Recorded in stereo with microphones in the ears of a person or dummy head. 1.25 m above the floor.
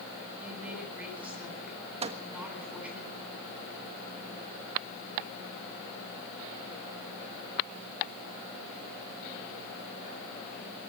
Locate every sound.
0.4 s a woman speaking: 5° right (ahead or behind), 10 m
2.0 s a microwave: 30° right (ahead or behind), 1.2 m